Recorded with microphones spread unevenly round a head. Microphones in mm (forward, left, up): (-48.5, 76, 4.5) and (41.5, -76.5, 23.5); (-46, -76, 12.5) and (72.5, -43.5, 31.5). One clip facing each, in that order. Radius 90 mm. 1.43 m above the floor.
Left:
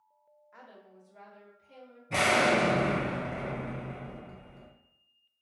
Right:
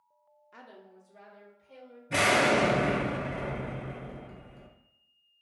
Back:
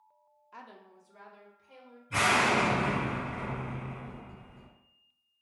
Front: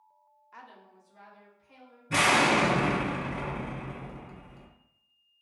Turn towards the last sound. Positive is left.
turn(degrees=20)